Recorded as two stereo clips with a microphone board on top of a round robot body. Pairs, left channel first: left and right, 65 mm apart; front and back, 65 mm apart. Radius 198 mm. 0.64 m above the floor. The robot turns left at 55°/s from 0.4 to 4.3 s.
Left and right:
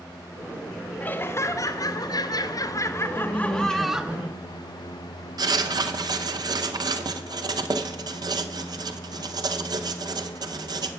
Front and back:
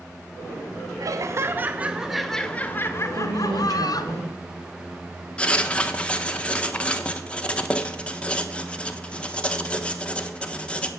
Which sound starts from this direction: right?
Writing, at 5.4 s.